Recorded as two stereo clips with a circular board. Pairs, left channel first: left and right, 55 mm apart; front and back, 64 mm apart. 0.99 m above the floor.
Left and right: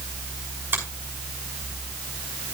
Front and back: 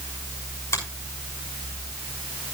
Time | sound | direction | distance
0.7 | a finger snap | 40° right | 6 m